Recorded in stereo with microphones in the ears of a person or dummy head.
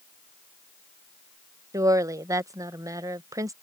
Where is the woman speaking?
10° right (ahead or behind).